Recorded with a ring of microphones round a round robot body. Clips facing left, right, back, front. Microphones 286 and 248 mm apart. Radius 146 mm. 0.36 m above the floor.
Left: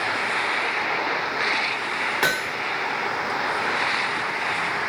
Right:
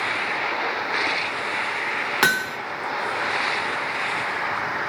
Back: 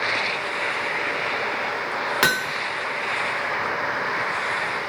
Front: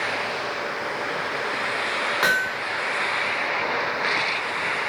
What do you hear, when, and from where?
2.2 s hammering: 140° right, 1.0 m